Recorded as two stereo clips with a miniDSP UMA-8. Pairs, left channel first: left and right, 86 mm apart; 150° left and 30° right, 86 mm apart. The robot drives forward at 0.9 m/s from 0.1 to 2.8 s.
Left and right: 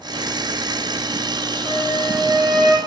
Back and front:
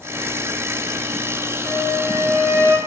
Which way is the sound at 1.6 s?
10° right.